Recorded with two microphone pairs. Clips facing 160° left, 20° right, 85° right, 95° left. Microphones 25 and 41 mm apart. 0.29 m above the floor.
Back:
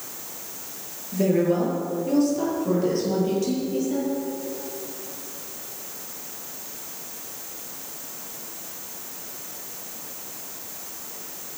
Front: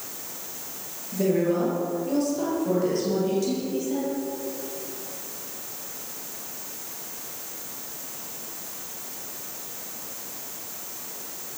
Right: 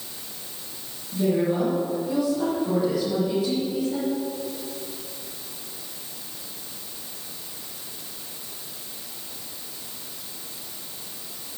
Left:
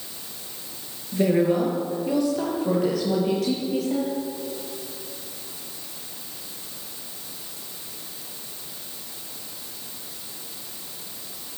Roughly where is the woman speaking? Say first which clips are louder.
Back 2 dB, left 2 dB; left.